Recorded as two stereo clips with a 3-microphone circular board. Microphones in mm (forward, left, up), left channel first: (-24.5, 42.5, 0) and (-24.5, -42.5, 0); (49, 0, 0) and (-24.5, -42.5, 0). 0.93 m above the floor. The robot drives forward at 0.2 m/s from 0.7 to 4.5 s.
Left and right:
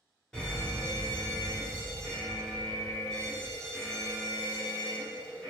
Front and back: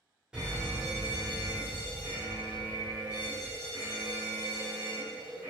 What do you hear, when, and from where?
0.3 s a fire alarm: 145° left, 1.1 m; by 5.5 s 170° left, 1.5 m